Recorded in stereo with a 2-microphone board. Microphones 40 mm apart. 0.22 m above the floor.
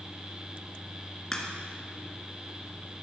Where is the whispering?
I don't hear whispering.